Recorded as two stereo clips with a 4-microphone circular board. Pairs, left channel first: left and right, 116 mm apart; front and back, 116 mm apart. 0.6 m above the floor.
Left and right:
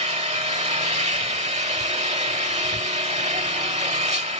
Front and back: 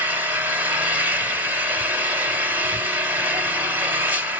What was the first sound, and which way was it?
An engine running, 105° right.